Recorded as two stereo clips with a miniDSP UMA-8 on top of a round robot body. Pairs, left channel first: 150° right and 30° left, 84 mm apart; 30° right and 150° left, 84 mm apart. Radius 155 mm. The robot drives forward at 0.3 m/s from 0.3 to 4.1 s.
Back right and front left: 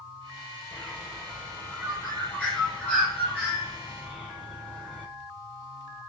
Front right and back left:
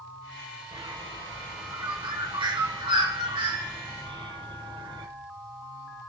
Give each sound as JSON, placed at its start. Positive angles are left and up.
{"t": 0.7, "sound": "a bird", "azimuth_deg": 130, "distance_m": 9.5}